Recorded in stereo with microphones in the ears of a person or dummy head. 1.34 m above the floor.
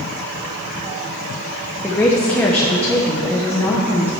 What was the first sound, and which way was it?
A woman speaking, 10° left (ahead or behind).